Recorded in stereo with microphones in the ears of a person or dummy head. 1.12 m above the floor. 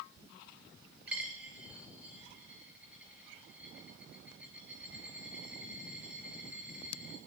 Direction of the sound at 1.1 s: 5° right (ahead or behind).